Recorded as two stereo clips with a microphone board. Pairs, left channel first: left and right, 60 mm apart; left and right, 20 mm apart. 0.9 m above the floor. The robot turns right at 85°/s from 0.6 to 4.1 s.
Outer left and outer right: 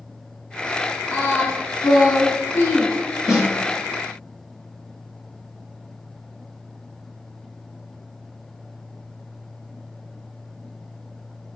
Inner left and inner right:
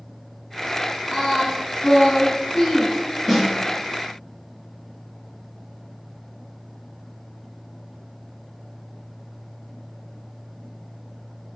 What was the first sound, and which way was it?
Singing, 20° left.